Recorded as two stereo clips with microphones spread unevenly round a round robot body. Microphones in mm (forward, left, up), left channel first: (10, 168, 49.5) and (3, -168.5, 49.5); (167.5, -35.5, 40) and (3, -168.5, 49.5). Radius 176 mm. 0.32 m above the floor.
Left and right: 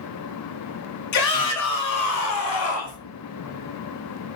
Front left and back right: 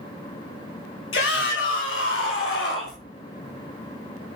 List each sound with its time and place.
1.1 s a shout: 55° left, 4.5 m; by 3.0 s 45° left, 5.5 m